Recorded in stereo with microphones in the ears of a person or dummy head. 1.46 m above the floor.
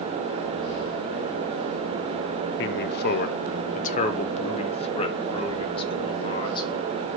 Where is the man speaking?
60° left (ahead or behind), 0.8 m; by 6.7 s 30° left (ahead or behind), 3 m.